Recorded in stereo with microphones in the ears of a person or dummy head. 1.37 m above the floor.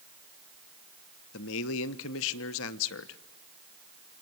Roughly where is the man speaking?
Left.